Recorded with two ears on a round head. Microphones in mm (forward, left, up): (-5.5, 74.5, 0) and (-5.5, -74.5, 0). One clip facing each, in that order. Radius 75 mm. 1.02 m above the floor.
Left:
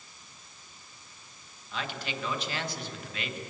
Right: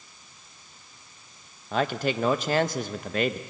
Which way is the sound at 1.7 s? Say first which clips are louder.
Right 11 dB; 40° right (ahead or behind).